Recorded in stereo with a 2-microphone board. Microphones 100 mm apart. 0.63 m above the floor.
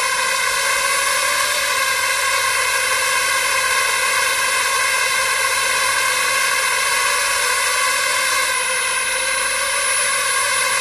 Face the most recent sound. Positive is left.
turn(degrees=0)  # may be behind; listen again after turning